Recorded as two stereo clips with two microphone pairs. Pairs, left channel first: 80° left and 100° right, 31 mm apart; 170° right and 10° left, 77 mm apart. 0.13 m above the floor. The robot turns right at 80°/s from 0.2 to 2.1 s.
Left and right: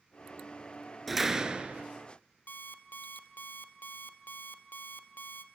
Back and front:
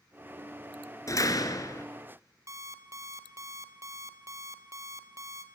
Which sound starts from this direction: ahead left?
An alarm clock, at 2.5 s.